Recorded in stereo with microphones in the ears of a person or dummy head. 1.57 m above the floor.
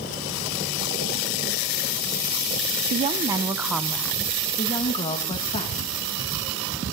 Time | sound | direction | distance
2.9 | a woman speaking | 35° right (ahead or behind) | 0.9 m